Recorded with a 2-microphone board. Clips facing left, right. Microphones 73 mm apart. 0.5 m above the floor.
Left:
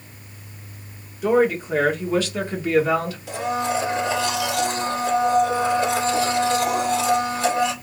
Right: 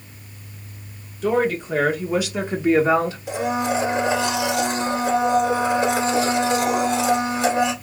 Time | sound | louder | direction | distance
1.2 | a woman speaking | left 2 dB | 10° left (ahead or behind) | 1.3 m
3.3 | a blender | left 1 dB | 20° right (ahead or behind) | 1.5 m